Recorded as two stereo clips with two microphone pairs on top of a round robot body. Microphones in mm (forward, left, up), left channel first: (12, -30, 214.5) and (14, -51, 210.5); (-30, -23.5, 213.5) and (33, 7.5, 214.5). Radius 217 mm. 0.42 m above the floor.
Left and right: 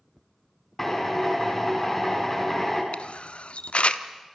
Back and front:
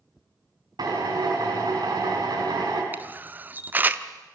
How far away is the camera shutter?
About 1.2 m.